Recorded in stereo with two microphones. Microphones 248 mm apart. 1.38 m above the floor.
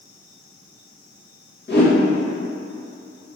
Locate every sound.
1.7 s a whoosh: 45° left (ahead or behind), 2.0 m